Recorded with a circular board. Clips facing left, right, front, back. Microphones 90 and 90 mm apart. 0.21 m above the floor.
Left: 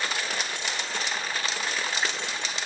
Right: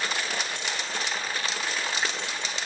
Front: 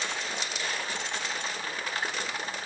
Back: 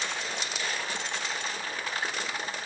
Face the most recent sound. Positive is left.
No sound to turn to.